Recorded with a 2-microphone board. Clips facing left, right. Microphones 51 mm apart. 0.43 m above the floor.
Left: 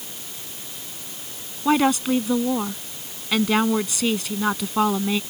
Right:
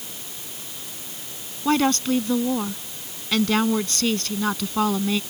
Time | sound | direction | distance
1.6 | a woman speaking | 10° left (ahead or behind) | ?